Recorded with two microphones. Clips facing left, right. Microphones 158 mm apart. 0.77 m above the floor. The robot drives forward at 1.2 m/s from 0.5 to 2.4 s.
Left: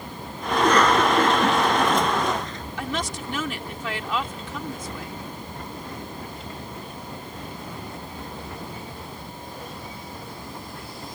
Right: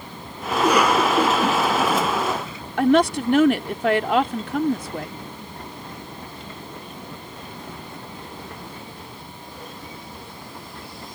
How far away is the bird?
No bird in this recording.